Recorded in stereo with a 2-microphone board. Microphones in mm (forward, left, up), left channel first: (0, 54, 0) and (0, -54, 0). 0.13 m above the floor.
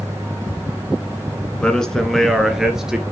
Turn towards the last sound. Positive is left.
turn(degrees=-5)  # may be behind; listen again after turning